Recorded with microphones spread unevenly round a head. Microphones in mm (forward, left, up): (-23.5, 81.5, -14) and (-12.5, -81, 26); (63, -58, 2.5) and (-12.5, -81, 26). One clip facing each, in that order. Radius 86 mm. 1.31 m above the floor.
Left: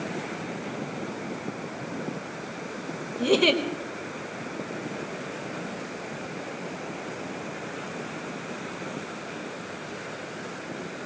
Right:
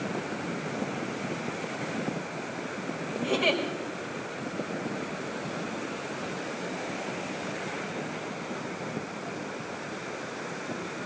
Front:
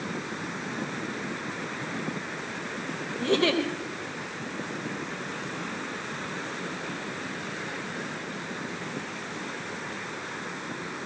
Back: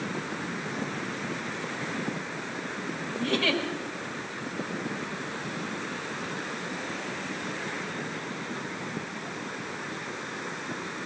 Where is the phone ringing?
No phone ringing in this recording.